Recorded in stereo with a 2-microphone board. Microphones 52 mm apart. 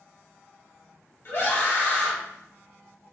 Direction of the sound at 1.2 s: 40° left (ahead or behind).